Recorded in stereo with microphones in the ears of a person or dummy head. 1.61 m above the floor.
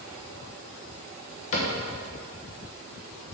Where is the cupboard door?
45° left (ahead or behind), 1.0 m.